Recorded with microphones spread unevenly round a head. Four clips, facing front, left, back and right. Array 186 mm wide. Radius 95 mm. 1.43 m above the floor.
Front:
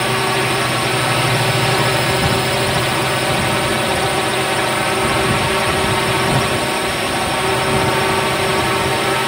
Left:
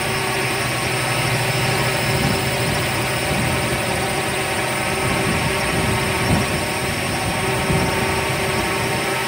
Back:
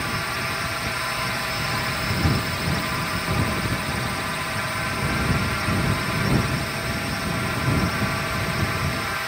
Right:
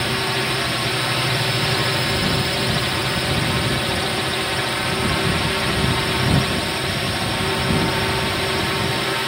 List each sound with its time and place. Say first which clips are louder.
0.0 s a drone: left 1 dB, front 11 dB; straight ahead